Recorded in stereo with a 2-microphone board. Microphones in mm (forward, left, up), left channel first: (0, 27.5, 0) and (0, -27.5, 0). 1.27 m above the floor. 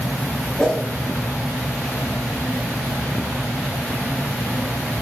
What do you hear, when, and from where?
0.6 s a whoosh: 10° left (ahead or behind), 1.2 m